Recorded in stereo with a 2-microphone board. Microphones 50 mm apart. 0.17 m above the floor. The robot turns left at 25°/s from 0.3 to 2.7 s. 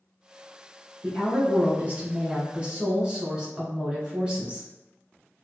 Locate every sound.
1.0 s a woman speaking: 100° right, 1.4 m; by 4.7 s 140° right, 1.4 m